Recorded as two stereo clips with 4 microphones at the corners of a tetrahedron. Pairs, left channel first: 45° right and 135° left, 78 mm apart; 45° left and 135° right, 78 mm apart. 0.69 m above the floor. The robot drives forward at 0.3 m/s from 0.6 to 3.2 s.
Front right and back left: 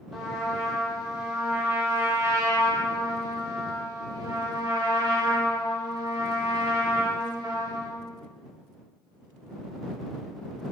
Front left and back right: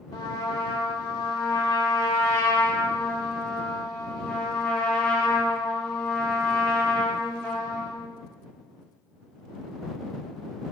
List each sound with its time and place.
0.1 s a trumpet: 50° left, 0.8 m; by 8.0 s 120° left, 0.7 m